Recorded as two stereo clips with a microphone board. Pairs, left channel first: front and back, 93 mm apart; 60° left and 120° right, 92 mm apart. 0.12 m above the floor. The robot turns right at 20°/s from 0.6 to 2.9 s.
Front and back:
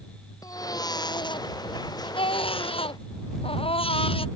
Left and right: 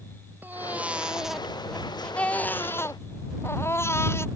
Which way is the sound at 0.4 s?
50° right.